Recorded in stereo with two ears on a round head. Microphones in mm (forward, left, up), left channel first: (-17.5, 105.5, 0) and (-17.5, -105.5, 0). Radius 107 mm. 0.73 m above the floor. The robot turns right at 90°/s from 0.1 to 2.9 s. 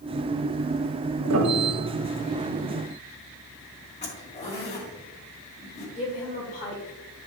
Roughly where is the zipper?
Left.